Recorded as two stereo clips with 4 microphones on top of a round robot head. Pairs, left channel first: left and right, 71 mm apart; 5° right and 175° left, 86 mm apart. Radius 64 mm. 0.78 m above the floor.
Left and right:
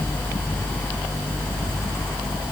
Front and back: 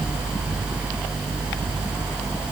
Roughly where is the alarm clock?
No alarm clock in this recording.